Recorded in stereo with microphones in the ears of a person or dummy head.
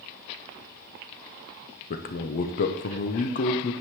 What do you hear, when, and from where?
1.9 s a man speaking: 35° left (ahead or behind), 0.6 m